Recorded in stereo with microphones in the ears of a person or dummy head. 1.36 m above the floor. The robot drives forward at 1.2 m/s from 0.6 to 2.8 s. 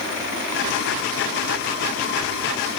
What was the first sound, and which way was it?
Only background noise.